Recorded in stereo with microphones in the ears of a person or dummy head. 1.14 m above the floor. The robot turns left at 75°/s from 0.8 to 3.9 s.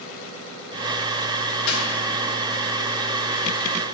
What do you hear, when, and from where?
1.7 s a dropped coin: 70° left (ahead or behind), 1.2 m; by 1.9 s 65° left (ahead or behind), 1.2 m